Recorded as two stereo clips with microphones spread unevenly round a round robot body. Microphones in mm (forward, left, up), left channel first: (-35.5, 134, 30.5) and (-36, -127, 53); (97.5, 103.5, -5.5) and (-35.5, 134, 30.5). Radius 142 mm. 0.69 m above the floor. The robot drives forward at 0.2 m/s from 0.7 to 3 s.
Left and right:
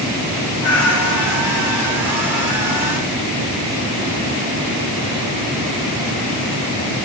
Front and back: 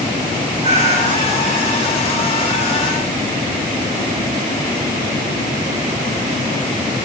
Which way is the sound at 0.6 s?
125° left.